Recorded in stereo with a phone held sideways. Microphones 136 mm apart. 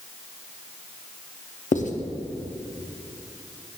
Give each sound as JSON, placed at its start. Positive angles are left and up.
{"t": 1.7, "sound": "writing", "side_deg": 65, "distance_m": 0.7}